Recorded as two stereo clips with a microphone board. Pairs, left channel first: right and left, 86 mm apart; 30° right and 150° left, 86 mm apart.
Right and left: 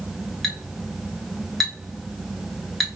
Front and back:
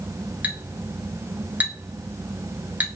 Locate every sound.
0.4 s a clink: 170° right, 0.9 m